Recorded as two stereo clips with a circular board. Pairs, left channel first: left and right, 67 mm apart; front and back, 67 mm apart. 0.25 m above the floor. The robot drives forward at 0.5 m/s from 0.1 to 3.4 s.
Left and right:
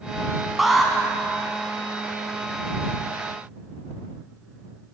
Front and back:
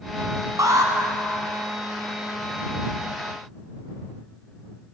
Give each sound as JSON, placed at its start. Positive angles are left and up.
{"t": 0.6, "sound": "an alarm", "azimuth_deg": -175, "distance_m": 1.4}